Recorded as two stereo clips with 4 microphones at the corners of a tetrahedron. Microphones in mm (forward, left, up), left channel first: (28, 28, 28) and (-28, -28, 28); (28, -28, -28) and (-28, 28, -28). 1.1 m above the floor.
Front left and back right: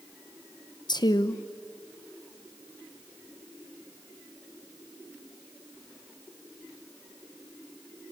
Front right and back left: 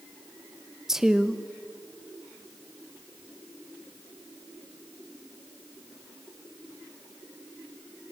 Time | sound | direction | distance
0.9 | a woman speaking | 50° left | 1.0 m